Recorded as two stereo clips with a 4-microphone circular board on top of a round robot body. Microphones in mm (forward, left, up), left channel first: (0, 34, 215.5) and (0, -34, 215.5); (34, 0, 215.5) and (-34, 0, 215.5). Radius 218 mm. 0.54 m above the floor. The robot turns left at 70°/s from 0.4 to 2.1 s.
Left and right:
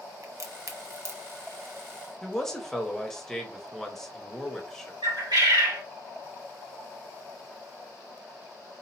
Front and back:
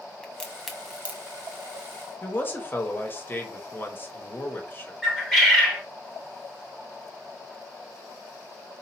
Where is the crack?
70° right, 1.5 m; by 1.2 s 125° right, 1.5 m.